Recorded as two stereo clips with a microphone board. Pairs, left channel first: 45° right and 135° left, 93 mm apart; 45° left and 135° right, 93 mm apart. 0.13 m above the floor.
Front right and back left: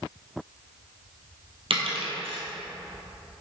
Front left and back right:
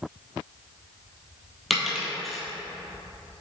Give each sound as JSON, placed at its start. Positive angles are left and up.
{"t": 1.7, "sound": "a dropped coin", "azimuth_deg": 135, "distance_m": 1.4}